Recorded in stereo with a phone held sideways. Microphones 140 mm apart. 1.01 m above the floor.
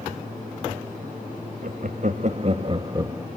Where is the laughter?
65° right (ahead or behind), 2.0 m; by 3.3 s 15° right (ahead or behind), 1.4 m.